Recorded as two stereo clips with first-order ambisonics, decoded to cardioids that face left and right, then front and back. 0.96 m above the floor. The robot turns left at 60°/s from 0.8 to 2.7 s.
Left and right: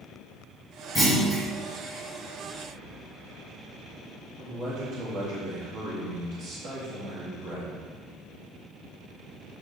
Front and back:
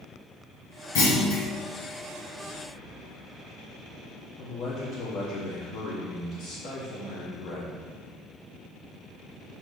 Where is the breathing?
5° left, 1.6 m; by 3.0 s 10° right, 1.6 m.